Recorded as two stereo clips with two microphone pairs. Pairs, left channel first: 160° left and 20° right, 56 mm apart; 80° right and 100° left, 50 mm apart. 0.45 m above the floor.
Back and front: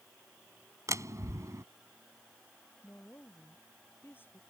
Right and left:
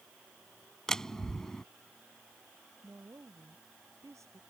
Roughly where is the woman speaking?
Left.